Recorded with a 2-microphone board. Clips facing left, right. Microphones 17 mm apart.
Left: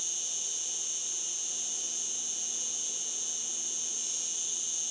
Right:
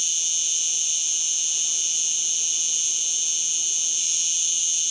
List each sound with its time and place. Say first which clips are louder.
0.0 s an insect: right 11 dB; 45° right (ahead or behind), 0.9 m